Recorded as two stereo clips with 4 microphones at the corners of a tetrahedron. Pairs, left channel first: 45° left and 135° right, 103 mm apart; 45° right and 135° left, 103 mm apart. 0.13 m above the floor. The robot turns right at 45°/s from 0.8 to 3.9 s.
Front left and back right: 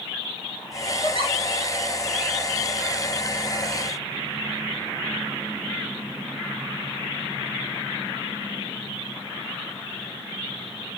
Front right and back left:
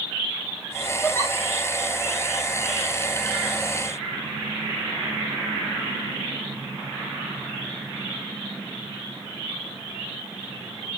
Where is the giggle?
120° right, 2.5 m; by 1.4 s 105° right, 2.5 m.